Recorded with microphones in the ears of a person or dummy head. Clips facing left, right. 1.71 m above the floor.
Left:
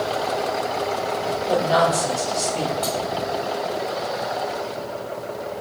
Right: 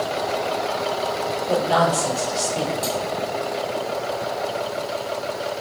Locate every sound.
1.5 s a woman speaking: 5° right (ahead or behind), 6 m
2.8 s cutlery clinking: 15° left (ahead or behind), 5.5 m